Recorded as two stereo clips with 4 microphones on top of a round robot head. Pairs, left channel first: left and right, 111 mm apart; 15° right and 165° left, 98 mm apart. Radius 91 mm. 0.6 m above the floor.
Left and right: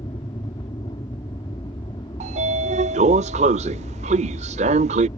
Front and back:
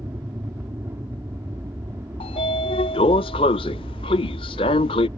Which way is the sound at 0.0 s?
115° left.